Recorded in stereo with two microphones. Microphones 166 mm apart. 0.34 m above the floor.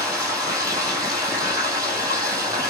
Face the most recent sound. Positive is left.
turn(degrees=-25)  # may be behind; listen again after turning